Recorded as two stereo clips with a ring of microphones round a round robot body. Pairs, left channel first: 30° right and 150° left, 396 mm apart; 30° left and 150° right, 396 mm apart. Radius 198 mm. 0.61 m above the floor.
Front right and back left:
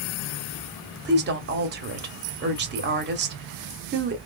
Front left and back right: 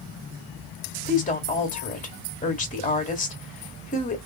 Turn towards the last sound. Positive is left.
turn(degrees=95)